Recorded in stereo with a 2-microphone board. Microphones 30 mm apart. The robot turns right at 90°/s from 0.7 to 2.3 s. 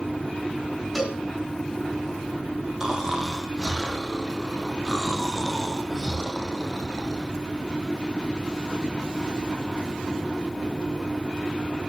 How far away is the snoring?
About 3 m.